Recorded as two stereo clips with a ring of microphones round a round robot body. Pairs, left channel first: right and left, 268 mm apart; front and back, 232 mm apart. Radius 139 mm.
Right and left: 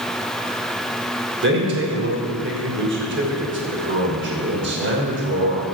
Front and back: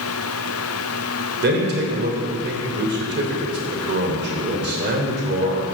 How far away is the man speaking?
About 2.5 m.